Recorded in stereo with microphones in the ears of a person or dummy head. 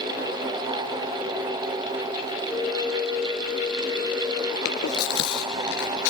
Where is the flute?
Centre (ahead or behind), 2.5 m.